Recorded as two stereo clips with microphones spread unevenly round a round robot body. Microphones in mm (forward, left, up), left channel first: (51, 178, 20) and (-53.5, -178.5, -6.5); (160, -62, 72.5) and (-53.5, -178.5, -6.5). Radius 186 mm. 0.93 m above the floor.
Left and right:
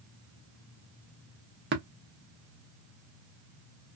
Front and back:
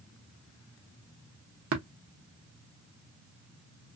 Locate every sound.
1.7 s tapping: 170° right, 0.7 m